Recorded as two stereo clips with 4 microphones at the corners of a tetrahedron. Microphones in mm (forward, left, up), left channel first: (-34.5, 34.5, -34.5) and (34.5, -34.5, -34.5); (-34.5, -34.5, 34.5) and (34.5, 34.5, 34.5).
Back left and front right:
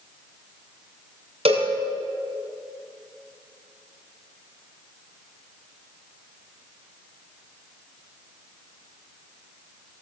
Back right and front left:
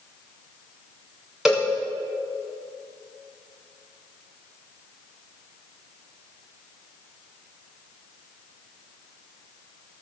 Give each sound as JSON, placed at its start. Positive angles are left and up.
{"t": 1.4, "sound": "a cowbell", "azimuth_deg": -40, "distance_m": 6.0}